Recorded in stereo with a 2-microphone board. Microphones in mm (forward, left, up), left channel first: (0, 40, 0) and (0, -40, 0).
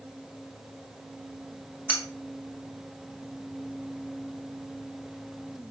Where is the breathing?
I don't hear breathing.